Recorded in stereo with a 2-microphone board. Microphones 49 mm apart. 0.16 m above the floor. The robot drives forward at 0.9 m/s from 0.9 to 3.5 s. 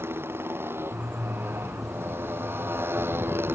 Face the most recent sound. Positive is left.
turn(degrees=-50)  # may be behind; listen again after turning